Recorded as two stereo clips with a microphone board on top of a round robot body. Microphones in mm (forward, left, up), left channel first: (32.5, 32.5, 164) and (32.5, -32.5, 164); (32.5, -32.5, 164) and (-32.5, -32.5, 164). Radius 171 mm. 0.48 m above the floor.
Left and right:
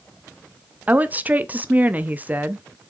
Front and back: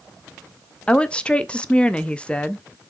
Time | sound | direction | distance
0.9 | a woman speaking | 55° right | 0.7 m